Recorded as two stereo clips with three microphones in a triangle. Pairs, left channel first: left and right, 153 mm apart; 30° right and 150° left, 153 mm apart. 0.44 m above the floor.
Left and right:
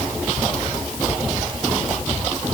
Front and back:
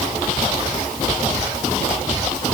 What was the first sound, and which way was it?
Only background noise.